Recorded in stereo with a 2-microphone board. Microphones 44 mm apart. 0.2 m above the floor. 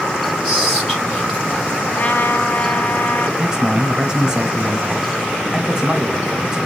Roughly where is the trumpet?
Left.